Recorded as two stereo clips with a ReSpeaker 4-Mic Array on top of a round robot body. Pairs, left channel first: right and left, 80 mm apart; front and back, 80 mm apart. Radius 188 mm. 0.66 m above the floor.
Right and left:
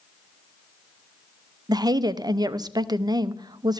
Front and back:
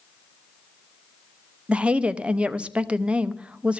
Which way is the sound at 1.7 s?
105° left.